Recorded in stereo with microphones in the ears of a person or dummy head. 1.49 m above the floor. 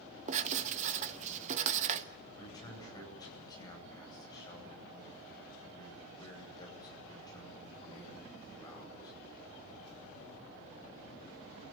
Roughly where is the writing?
Right.